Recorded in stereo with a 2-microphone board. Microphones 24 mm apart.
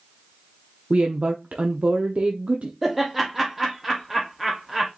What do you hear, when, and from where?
0.9 s a woman speaking: 60° right (ahead or behind), 0.7 m
2.8 s laughter: 10° right (ahead or behind), 0.8 m